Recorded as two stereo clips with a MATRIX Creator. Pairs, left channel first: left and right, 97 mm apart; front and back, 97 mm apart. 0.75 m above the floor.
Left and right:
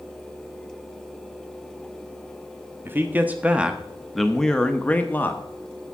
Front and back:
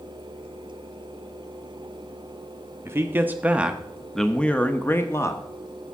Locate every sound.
2.9 s a man speaking: 140° right, 1.1 m; by 5.4 s 35° left, 1.2 m